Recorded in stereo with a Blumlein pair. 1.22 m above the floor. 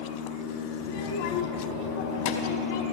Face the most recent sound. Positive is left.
turn(degrees=50)